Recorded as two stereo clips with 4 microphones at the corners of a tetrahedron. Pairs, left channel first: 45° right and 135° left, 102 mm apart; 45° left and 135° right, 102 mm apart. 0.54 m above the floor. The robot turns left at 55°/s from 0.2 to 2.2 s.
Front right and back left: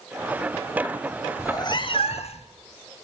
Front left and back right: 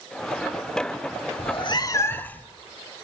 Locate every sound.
1.4 s a cat meowing: 15° left, 0.8 m; by 2.5 s 30° right, 0.8 m